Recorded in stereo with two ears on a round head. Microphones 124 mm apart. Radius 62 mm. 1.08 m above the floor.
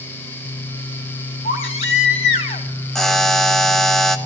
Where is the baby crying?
45° left (ahead or behind), 1.9 m.